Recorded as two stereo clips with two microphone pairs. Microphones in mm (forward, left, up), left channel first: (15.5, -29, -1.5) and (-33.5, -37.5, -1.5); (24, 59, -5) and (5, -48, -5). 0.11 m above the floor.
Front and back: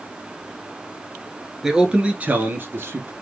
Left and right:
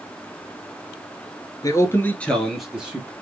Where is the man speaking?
115° left, 1.4 m; by 3.1 s 170° right, 1.7 m.